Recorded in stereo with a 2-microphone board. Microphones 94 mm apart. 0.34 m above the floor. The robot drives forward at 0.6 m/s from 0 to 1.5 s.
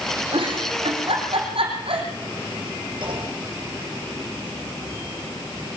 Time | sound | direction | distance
0.3 | a giggle | 70° right (ahead or behind) | 7 m
3.0 | a clunk | 55° right (ahead or behind) | 10 m